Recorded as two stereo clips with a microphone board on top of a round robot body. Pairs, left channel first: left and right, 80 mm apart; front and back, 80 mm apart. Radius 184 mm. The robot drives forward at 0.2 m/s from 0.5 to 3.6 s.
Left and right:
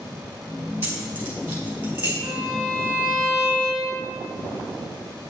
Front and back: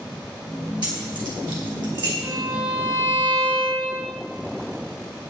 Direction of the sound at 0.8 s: 155° right.